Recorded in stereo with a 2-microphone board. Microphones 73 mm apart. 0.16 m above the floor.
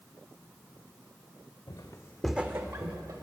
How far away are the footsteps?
About 0.9 m.